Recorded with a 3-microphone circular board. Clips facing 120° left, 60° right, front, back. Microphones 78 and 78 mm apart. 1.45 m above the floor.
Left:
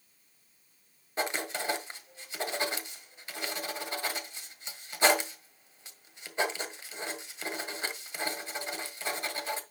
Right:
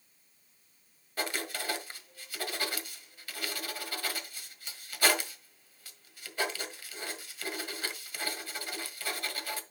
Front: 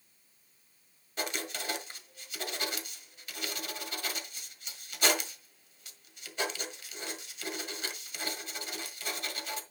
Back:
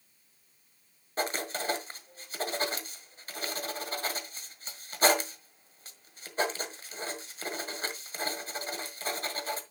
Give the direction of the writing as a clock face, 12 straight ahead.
6 o'clock.